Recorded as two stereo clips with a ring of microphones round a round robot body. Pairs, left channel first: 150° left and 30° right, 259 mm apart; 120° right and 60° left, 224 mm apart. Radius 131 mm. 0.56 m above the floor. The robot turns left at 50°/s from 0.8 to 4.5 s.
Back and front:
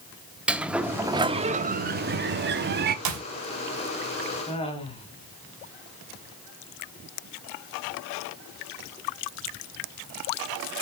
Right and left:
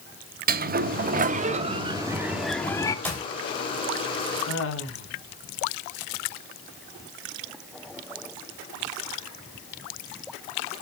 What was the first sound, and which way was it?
A sliding door, 55° left.